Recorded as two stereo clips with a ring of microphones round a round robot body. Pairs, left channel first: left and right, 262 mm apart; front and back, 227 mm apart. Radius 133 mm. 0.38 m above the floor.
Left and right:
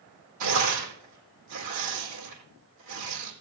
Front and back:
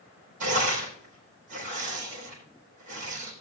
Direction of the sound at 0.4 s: 115° right.